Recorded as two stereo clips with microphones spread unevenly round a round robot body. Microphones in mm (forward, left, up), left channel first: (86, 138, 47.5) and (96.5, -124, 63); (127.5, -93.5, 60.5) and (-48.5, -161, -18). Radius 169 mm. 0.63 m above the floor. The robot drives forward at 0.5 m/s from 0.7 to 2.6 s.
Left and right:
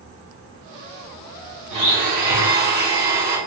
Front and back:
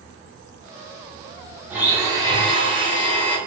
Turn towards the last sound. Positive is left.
turn(degrees=-105)